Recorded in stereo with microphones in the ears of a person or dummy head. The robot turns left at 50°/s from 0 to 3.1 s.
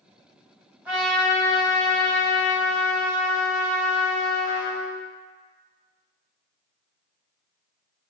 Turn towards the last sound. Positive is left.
turn(degrees=80)